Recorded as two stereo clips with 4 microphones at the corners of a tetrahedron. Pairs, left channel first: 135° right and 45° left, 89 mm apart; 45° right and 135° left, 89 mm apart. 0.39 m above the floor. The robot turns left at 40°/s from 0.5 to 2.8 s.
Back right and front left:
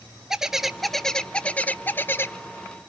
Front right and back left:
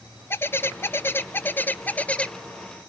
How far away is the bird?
About 0.8 m.